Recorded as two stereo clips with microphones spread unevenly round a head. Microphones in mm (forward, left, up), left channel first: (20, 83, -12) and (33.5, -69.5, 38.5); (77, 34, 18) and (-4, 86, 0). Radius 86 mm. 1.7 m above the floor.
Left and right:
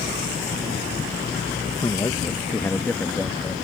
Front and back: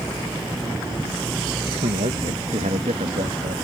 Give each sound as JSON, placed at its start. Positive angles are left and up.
{"t": 1.8, "sound": "a man speaking", "azimuth_deg": 175}